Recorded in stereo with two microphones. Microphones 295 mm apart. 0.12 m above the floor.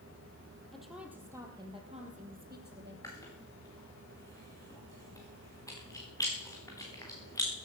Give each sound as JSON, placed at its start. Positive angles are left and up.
{"t": 0.7, "sound": "a woman speaking", "side_deg": 0, "distance_m": 3.0}
{"t": 3.0, "sound": "chewing", "side_deg": 10, "distance_m": 4.0}